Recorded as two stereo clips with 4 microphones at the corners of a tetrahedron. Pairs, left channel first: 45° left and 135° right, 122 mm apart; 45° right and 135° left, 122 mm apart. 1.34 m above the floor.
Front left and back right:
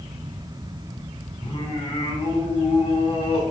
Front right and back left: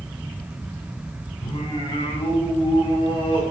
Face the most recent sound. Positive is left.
turn(degrees=5)